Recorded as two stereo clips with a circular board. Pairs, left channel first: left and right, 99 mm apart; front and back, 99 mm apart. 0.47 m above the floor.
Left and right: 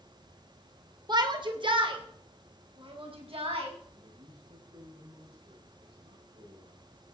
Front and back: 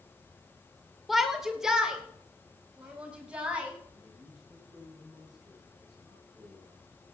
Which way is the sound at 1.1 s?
90° right.